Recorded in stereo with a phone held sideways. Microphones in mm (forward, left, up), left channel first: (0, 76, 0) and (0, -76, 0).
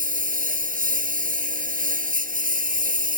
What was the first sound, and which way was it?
A lawn mower, 70° right (ahead or behind).